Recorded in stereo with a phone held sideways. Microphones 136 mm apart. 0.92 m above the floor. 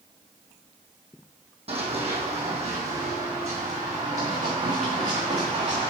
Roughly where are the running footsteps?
Right.